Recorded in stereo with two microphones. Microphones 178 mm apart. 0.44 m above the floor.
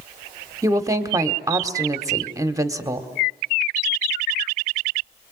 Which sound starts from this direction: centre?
A woman speaking, at 0.6 s.